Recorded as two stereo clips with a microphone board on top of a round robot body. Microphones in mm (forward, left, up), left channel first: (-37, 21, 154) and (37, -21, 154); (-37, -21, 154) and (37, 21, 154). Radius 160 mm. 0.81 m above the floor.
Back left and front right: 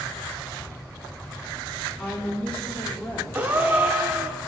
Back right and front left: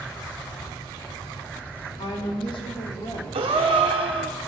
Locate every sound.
2.0 s a woman speaking: 135° right, 2.0 m
3.3 s a gasp: 35° left, 0.8 m